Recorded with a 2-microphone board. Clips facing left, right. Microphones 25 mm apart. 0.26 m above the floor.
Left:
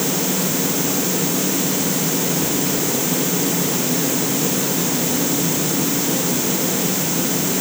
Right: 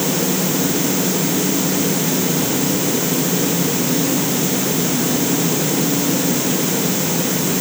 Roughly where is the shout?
No shout in this recording.